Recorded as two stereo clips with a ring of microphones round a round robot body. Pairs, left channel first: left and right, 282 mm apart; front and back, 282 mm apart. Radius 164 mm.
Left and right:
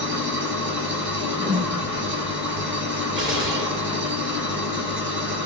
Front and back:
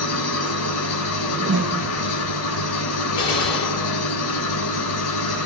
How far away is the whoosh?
About 0.8 m.